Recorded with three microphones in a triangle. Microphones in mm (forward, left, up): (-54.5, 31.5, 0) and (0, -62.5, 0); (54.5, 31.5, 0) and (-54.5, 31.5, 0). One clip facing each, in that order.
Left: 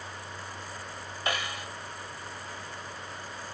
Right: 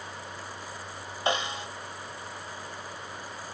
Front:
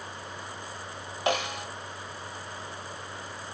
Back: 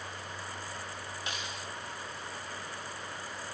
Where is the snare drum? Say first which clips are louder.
Right 4 dB, front 16 dB; 5° left.